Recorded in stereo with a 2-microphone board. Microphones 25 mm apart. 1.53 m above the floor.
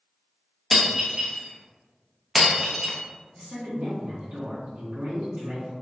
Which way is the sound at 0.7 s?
10° right (ahead or behind).